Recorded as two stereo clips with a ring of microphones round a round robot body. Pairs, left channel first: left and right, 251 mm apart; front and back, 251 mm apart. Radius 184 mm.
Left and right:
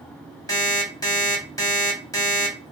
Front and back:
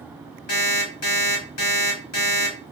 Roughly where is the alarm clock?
Ahead.